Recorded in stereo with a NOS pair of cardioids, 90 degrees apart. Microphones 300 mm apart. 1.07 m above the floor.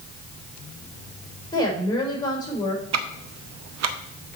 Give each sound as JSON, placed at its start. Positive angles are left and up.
{"t": 1.5, "sound": "a woman speaking", "azimuth_deg": 15, "distance_m": 3.5}
{"t": 2.9, "sound": "ticking", "azimuth_deg": -60, "distance_m": 0.8}